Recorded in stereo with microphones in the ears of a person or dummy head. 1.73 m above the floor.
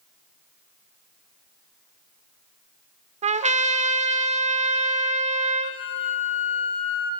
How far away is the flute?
About 2 m.